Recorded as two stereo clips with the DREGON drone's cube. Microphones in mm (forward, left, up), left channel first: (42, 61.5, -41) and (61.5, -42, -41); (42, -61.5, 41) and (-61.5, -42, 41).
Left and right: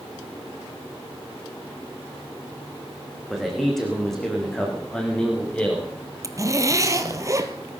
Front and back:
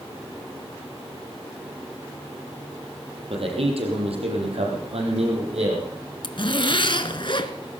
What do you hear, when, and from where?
3.3 s a man speaking: 170° right, 5 m; by 5.9 s straight behind, 7 m
6.2 s a zipper: 30° right, 1.0 m